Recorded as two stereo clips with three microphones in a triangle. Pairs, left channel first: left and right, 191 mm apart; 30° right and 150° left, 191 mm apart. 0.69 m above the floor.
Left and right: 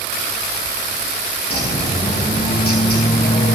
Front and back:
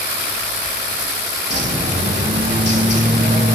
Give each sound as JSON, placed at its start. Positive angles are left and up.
{"t": 1.5, "sound": "a bird", "azimuth_deg": 130, "distance_m": 4.0}